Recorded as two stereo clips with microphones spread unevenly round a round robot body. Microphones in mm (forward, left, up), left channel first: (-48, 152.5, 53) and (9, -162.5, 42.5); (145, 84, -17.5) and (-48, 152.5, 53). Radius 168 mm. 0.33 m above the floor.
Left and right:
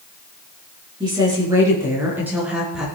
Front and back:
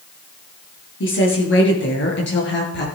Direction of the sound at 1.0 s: Straight ahead.